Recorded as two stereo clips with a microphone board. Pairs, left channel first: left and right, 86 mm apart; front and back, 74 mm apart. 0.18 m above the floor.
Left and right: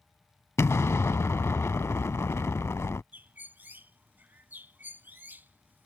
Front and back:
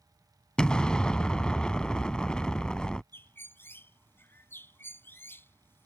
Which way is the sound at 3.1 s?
35° right.